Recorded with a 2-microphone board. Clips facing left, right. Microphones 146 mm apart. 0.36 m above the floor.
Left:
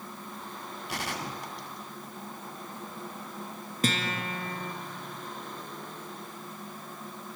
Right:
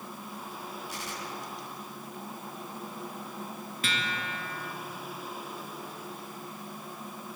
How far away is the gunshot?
About 2.0 m.